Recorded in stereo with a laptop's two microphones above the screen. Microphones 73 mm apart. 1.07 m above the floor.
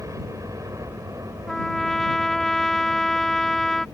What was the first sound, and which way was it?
A helicopter, 45° right (ahead or behind).